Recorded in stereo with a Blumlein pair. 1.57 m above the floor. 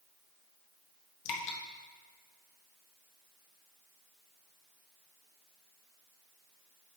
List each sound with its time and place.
1.2 s dripping: 45° left, 0.8 m